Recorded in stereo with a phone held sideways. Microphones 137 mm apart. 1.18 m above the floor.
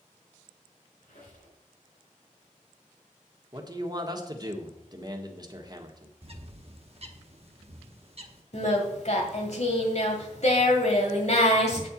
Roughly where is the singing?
Left.